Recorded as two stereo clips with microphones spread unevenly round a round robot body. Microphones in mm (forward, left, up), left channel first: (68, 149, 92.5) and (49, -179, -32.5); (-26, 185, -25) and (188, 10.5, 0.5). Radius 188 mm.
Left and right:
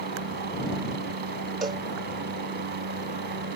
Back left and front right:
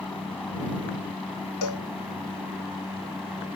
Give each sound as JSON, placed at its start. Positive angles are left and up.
{"t": 0.0, "sound": "a helicopter", "azimuth_deg": -130}
{"t": 1.6, "sound": "a cowbell", "azimuth_deg": -175}